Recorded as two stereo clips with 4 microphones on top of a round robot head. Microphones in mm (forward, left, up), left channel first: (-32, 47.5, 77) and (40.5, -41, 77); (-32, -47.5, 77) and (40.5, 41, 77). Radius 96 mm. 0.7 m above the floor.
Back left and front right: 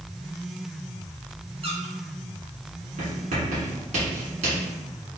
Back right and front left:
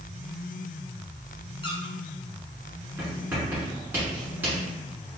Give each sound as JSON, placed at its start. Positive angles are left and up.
{"t": 1.6, "sound": "a squeak", "azimuth_deg": -85, "distance_m": 1.5}
{"t": 3.0, "sound": "writing", "azimuth_deg": -25, "distance_m": 1.9}